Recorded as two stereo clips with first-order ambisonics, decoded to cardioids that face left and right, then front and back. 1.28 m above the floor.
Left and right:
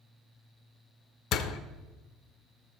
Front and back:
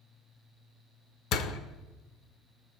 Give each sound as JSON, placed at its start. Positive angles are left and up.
{"t": 1.3, "sound": "a door slam", "azimuth_deg": 40, "distance_m": 0.8}